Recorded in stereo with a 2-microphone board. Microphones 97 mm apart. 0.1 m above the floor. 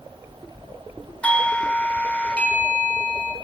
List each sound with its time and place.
1.2 s a doorbell: 15° left (ahead or behind), 1.6 m